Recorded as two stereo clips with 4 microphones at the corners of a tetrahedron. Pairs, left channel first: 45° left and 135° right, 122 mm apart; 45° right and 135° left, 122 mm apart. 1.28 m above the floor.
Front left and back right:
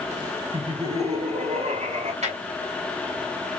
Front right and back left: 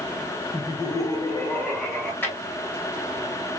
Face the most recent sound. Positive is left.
turn(degrees=-120)